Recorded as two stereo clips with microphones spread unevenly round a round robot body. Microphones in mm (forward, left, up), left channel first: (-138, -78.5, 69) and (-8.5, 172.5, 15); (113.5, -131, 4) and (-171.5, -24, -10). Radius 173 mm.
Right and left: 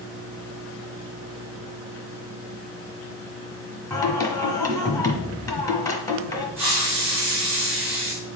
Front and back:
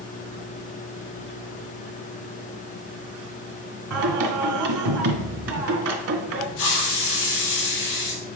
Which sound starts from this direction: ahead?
A hiss, at 6.6 s.